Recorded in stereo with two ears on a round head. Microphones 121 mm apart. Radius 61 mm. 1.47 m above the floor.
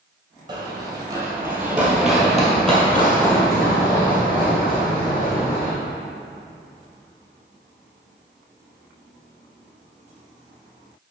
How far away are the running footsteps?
About 1.7 m.